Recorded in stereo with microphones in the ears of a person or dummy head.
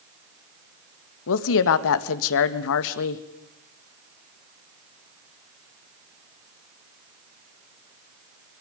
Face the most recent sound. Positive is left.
turn(degrees=70)  # may be behind; listen again after turning